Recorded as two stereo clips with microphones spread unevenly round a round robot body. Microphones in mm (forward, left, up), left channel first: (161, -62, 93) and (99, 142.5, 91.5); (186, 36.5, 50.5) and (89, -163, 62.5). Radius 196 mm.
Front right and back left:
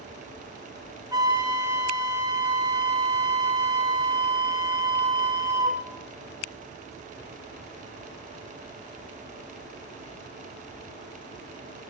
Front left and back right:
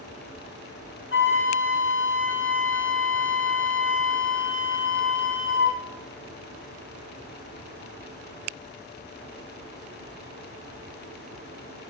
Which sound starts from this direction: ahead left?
A flute, at 1.1 s.